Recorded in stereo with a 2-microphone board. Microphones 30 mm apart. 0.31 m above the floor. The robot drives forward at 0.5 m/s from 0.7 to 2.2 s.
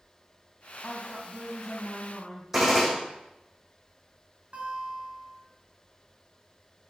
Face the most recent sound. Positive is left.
turn(degrees=-55)  # may be behind; listen again after turning